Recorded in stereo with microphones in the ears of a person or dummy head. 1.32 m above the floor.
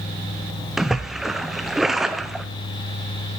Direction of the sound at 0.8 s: Centre (ahead or behind).